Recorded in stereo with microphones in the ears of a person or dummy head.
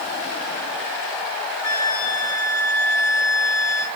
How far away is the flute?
About 5 m.